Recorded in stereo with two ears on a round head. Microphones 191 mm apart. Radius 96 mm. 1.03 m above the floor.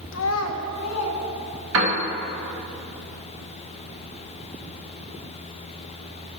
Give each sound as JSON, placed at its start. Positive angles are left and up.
{"t": 0.1, "sound": "a child speaking", "side_deg": 60, "distance_m": 0.6}
{"t": 1.7, "sound": "a piano", "side_deg": -75, "distance_m": 1.5}